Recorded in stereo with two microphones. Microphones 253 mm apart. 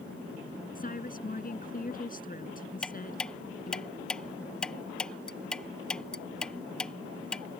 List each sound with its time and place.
0.8 s a woman speaking: 35° left (ahead or behind)
2.8 s ticking: 5° left (ahead or behind)